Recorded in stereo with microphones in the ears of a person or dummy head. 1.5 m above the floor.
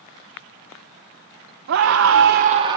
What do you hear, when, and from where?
1.7 s a scream: 70° right (ahead or behind), 1.2 m; by 2.8 s 20° right (ahead or behind), 1.1 m